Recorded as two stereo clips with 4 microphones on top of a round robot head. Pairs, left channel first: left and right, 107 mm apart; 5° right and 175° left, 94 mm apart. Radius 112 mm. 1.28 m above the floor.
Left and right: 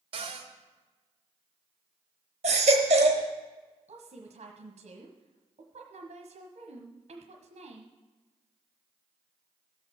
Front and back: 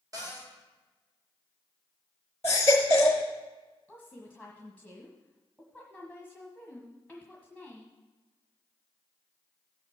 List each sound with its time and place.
0.1 s a cupboard door: 125° right, 1.6 m
2.4 s a baby crying: 75° right, 0.9 m
3.9 s a woman speaking: 100° right, 1.3 m